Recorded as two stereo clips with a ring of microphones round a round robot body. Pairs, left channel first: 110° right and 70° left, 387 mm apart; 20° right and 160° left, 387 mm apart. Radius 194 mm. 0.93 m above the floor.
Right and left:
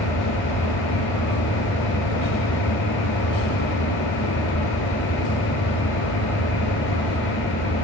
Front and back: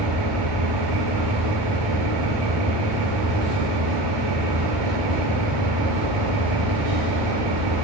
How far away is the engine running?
About 6.5 m.